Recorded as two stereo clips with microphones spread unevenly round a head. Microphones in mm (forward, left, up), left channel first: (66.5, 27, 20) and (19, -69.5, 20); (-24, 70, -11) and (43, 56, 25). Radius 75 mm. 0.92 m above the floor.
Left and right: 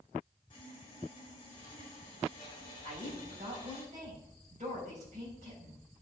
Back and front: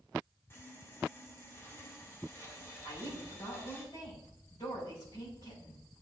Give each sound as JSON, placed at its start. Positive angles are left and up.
{"t": 0.5, "sound": "sawing", "azimuth_deg": 120, "distance_m": 2.5}
{"t": 2.8, "sound": "a woman speaking", "azimuth_deg": -155, "distance_m": 5.0}